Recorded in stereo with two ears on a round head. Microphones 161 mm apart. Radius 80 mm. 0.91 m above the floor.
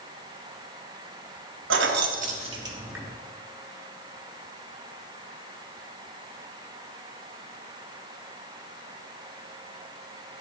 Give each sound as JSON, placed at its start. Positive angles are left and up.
{"t": 1.7, "sound": "keys jangling", "side_deg": -80, "distance_m": 0.8}